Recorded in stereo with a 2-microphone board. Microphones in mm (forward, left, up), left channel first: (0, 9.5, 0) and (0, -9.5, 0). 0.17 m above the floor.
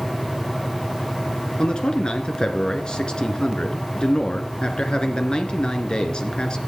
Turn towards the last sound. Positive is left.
turn(degrees=45)  # may be behind; listen again after turning